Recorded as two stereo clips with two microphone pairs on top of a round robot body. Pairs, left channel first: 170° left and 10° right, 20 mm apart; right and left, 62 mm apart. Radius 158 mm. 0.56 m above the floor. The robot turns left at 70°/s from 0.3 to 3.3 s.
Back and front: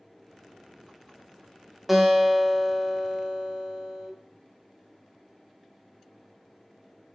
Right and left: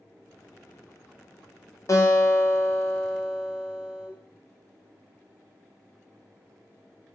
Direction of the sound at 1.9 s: 80° right.